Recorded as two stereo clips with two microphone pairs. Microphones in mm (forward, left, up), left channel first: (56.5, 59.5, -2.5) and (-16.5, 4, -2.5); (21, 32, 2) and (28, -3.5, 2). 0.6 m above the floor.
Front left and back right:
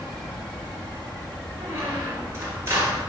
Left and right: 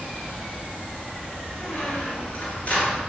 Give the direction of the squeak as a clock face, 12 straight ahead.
7 o'clock.